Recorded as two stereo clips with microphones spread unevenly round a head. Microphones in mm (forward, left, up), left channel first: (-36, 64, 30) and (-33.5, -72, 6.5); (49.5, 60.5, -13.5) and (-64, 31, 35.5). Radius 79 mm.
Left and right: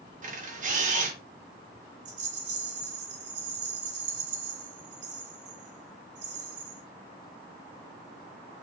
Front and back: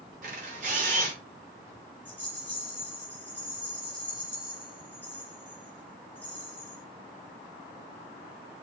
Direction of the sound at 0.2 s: 120° right.